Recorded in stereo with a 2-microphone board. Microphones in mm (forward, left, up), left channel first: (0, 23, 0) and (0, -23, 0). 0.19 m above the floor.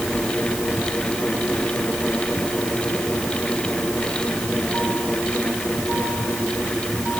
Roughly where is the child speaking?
I don't hear a child speaking.